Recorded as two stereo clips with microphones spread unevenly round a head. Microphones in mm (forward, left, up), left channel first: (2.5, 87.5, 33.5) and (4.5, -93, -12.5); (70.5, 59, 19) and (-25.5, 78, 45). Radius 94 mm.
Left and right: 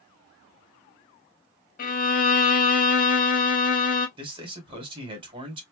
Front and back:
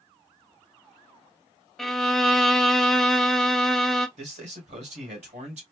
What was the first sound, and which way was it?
A violin, 85° left.